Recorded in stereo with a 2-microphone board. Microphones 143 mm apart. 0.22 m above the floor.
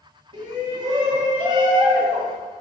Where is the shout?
35° right (ahead or behind), 1.7 m.